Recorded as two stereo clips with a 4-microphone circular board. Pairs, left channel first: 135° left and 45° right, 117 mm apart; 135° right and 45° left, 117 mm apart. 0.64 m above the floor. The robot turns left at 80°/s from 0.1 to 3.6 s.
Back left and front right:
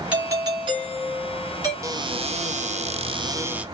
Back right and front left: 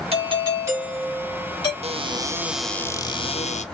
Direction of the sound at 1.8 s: 15° left.